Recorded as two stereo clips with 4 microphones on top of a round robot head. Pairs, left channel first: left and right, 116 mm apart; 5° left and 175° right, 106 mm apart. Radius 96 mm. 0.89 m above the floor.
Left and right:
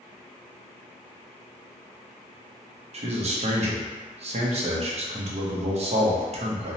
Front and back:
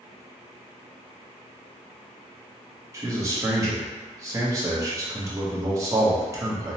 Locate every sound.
2.9 s a man speaking: 110° right, 0.8 m